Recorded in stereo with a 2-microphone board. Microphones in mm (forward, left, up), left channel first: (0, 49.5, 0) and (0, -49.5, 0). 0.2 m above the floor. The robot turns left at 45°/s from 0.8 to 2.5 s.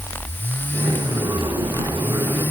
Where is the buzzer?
I don't hear a buzzer.